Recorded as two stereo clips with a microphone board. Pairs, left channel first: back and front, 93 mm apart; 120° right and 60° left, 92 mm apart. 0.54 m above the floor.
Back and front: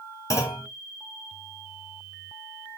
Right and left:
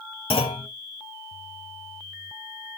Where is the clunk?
125° right, 1.5 m.